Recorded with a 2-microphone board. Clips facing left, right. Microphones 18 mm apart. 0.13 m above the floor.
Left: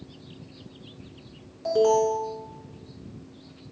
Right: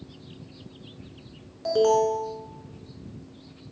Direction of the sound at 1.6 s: 20° right (ahead or behind).